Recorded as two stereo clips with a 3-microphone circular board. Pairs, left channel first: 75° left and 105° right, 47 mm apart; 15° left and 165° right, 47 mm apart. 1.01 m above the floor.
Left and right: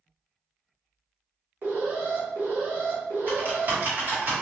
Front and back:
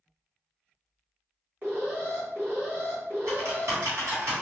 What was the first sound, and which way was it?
An alarm, 130° right.